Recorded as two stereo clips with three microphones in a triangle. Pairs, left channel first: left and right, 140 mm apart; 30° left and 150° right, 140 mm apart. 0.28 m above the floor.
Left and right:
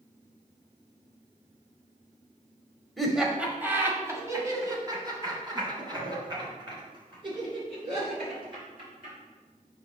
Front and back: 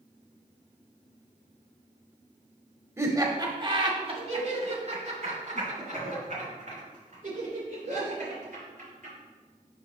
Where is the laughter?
Straight behind, 1.3 m; by 9.1 s 140° right, 5 m.